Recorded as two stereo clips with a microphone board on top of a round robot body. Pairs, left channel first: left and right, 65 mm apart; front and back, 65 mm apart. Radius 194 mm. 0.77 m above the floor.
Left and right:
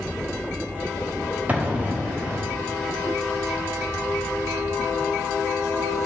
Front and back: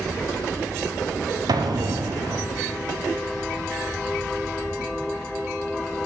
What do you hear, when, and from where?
1.5 s an explosion: 160° right, 1.0 m